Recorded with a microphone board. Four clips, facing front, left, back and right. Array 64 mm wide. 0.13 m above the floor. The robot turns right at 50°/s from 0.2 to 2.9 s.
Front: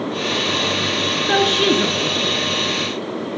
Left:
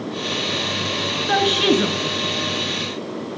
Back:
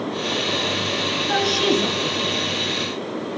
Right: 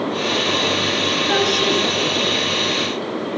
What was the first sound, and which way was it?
A woman speaking, 10° left.